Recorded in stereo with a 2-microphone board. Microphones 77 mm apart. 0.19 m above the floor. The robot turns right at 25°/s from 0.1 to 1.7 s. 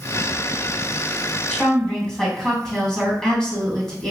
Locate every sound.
1.5 s a woman speaking: 10° left (ahead or behind), 1.5 m